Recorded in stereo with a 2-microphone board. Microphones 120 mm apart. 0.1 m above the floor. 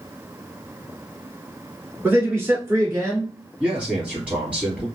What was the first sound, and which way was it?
A man speaking, 15° right (ahead or behind).